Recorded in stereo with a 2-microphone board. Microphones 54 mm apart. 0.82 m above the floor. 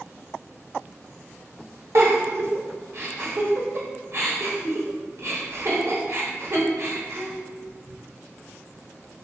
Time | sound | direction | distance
1.9 | a giggle | 60° right (ahead or behind) | 0.9 m